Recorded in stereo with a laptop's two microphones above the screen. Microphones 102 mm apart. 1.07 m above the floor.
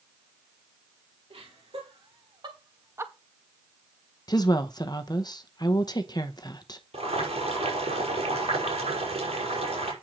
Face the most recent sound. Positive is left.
turn(degrees=-80)